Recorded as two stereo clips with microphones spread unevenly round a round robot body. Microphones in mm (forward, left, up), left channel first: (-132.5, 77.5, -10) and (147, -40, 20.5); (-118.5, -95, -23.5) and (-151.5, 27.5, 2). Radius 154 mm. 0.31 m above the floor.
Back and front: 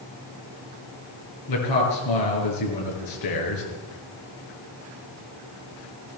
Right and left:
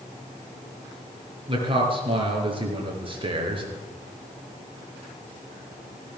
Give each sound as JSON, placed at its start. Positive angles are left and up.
{"t": 1.5, "sound": "a man speaking", "azimuth_deg": 155, "distance_m": 6.0}